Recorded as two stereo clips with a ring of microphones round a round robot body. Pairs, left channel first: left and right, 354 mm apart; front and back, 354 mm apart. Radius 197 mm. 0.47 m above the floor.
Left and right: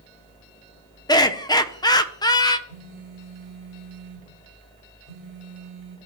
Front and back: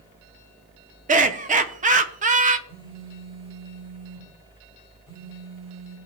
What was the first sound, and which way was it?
Laughter, 150° left.